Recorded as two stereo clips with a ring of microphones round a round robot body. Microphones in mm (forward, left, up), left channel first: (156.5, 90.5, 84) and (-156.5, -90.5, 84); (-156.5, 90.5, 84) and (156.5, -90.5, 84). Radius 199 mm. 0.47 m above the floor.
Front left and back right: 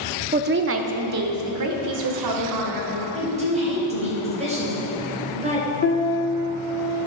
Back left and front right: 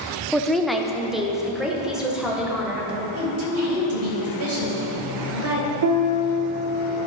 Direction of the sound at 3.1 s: 80° right.